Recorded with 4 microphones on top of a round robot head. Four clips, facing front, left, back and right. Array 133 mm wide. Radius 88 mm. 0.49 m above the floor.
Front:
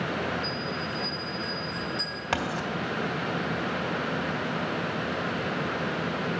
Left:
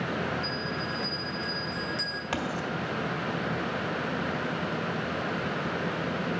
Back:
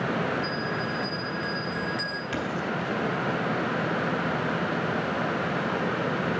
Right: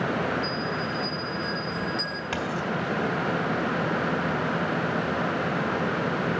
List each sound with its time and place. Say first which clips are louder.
0.4 s a bell: right 4 dB, back 3 dB; 160° left, 0.7 m
2.3 s writing: right 2 dB, front 2 dB; 5° left, 1.8 m